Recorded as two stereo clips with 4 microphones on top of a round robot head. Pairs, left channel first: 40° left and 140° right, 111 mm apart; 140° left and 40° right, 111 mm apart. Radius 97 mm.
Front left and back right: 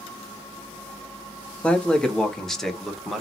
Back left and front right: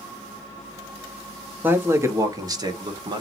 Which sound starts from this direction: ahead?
A man speaking, at 1.6 s.